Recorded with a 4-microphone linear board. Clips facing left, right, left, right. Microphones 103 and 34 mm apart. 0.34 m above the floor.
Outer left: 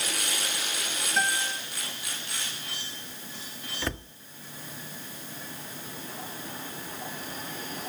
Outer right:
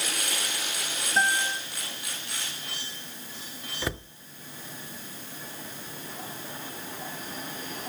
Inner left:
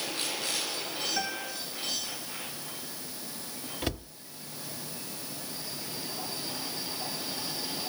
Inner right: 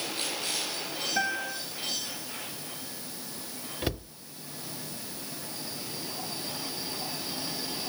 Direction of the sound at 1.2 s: 30° right (ahead or behind).